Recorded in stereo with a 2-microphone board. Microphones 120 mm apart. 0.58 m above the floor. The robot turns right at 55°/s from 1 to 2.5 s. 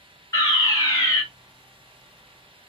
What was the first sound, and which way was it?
A fire alarm, 25° left (ahead or behind).